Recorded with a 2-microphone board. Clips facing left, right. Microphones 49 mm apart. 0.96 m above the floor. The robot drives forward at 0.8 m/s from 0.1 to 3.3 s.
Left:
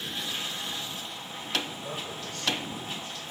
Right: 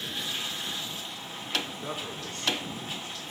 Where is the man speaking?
50° right (ahead or behind), 2.5 m; by 3.3 s 35° right (ahead or behind), 3.5 m.